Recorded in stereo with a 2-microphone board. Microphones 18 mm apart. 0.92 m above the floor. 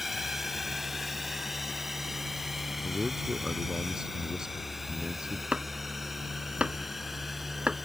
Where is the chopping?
70° right (ahead or behind).